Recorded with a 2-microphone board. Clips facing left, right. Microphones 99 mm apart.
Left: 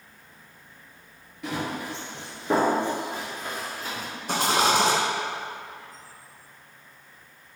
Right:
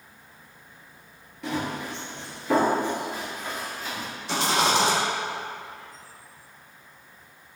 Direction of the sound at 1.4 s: Centre (ahead or behind).